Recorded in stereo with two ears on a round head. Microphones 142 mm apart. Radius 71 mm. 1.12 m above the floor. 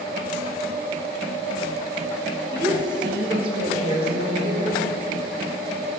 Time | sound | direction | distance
2.5 | a woman speaking | 25° right (ahead or behind) | 1.0 m